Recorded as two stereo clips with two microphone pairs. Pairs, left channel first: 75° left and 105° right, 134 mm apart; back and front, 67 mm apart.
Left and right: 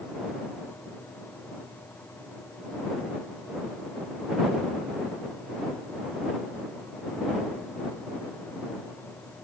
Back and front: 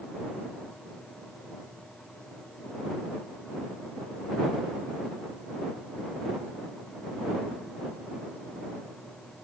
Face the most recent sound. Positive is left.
No sound to turn to.